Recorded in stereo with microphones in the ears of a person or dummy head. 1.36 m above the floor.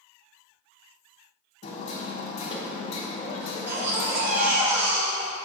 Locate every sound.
1.6 s hammering: 40° left (ahead or behind), 0.8 m
3.4 s a baby crying: 65° right (ahead or behind), 1.4 m